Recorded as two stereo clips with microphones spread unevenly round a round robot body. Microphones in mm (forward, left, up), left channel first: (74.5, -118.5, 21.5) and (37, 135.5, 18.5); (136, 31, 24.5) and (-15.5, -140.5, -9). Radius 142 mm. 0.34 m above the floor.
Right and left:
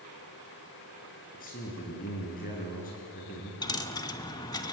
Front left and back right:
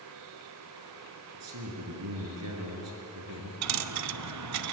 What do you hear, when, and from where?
1.3 s a man speaking: 145° right, 6 m
3.6 s a dropped coin: 160° right, 0.7 m